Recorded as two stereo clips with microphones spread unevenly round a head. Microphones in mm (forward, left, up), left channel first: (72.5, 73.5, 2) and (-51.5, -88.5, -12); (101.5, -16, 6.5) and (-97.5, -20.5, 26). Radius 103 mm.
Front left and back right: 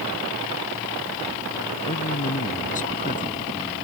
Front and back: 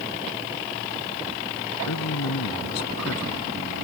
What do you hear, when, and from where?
1.9 s a man speaking: straight ahead